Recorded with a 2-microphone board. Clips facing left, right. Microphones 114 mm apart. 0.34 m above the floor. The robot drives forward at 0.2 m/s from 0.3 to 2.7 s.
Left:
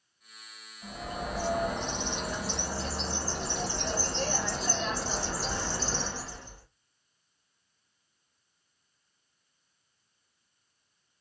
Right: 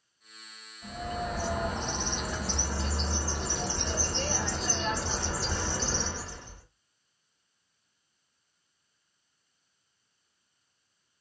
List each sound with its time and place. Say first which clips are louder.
0.8 s a bird: right 2 dB; 5° left (ahead or behind), 1.6 m